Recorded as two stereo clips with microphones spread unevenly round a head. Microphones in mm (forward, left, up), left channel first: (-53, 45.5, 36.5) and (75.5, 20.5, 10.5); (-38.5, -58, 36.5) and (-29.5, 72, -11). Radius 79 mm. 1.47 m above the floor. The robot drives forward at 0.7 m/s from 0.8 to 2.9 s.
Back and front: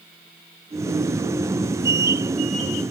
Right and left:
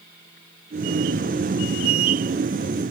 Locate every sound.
Only background noise.